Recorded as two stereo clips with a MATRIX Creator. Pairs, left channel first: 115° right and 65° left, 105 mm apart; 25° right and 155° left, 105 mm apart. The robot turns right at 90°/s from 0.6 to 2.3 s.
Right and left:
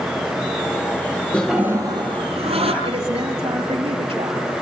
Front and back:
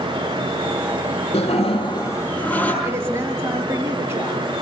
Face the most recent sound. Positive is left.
turn(degrees=90)